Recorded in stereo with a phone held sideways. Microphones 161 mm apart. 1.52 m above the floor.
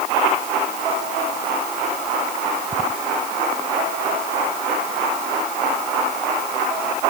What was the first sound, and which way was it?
Only background noise.